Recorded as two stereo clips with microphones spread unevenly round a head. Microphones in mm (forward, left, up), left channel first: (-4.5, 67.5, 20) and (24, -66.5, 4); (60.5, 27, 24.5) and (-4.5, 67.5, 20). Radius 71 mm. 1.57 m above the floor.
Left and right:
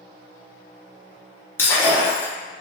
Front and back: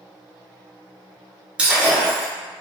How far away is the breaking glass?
About 0.6 m.